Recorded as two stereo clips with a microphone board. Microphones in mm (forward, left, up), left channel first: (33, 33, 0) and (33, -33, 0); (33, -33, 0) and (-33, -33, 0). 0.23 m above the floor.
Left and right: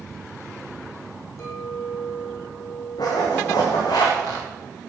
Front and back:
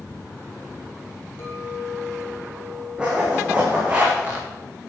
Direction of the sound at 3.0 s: 105° left.